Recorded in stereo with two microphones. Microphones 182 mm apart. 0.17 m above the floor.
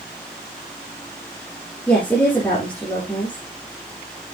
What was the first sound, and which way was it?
A woman speaking, 10° left (ahead or behind).